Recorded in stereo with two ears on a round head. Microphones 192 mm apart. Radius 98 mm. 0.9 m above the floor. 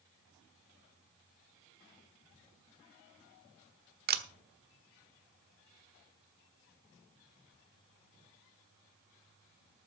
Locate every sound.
4.1 s a camera shutter: 50° right (ahead or behind), 1.3 m